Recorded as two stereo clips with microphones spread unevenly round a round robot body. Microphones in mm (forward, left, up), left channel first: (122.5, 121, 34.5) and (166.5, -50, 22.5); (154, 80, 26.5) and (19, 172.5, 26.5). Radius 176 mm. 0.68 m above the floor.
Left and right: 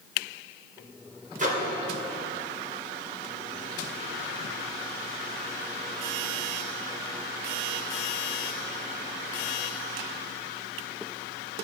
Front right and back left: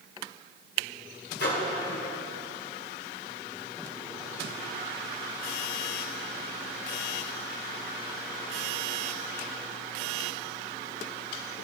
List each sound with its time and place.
1.4 s a microwave: 30° right, 2 m